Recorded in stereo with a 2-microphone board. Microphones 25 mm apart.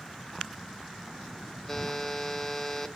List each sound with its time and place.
1.7 s a buzzer: 10° left (ahead or behind), 0.9 m